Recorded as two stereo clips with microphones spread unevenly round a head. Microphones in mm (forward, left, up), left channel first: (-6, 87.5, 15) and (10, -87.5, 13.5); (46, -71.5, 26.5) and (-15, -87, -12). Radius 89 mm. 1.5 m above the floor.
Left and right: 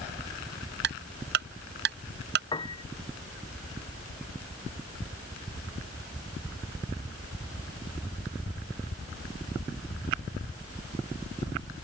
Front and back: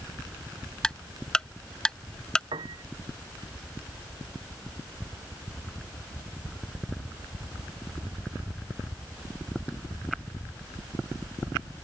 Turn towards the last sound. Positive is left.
turn(degrees=165)